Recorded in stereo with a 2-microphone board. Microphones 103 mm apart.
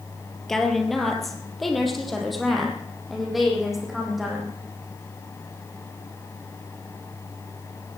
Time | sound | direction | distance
0.5 | a woman speaking | 5° left (ahead or behind) | 2.5 m